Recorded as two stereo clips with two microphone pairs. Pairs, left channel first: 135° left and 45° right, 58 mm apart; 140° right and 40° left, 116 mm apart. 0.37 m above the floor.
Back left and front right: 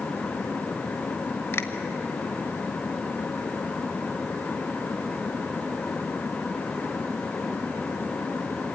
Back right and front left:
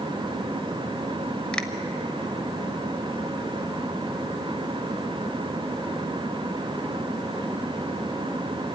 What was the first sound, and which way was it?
A finger snap, 140° left.